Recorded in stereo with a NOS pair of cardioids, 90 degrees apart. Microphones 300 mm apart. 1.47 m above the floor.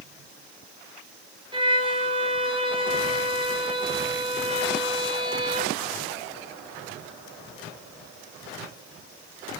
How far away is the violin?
About 5.5 m.